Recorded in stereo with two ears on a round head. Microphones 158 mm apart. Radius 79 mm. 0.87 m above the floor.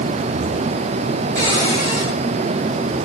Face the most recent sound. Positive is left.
turn(degrees=-45)  # may be behind; listen again after turning